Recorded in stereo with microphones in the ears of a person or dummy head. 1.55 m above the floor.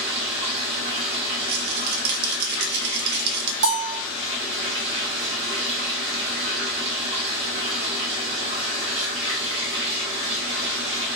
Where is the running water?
30° right (ahead or behind), 1.6 m.